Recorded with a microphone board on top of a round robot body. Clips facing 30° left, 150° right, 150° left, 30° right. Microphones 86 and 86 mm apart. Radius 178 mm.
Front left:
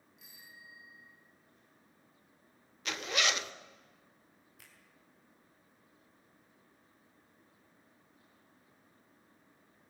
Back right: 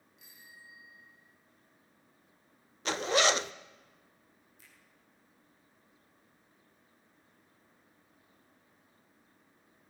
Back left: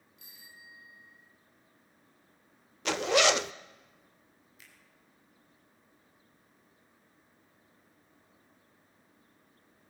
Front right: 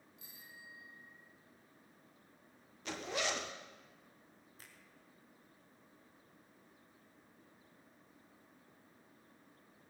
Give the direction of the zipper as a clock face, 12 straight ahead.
7 o'clock.